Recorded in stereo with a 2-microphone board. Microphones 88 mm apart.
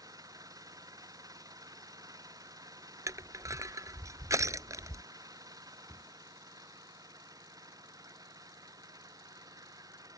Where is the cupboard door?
10° left (ahead or behind).